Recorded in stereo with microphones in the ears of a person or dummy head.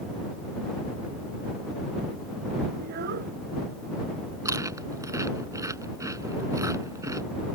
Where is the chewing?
20° right (ahead or behind).